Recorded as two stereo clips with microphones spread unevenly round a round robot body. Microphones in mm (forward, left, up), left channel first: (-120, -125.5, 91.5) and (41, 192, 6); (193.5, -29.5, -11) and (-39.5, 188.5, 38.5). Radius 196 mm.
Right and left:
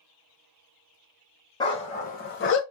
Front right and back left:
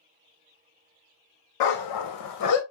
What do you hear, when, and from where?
1.6 s a dog barking: 45° right, 0.9 m; by 2.6 s 95° right, 0.6 m